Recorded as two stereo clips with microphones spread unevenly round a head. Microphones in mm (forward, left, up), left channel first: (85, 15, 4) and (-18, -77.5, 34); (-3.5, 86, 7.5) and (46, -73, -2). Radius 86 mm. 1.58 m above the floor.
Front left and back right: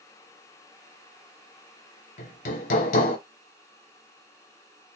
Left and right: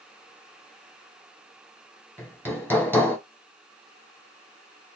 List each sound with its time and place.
2.2 s hammering: 30° left, 1.8 m